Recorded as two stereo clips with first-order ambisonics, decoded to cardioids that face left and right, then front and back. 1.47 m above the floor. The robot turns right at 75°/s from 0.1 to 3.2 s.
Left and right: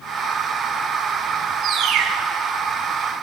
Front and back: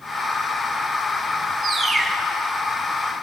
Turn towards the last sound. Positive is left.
turn(degrees=-5)